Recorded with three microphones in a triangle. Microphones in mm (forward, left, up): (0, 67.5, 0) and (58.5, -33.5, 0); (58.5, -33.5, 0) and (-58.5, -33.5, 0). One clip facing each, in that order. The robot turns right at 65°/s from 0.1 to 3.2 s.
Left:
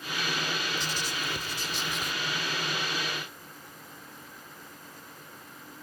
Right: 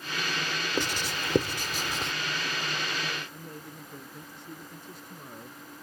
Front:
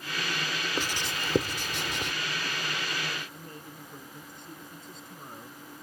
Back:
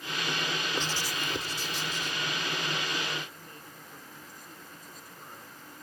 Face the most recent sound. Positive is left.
turn(degrees=-65)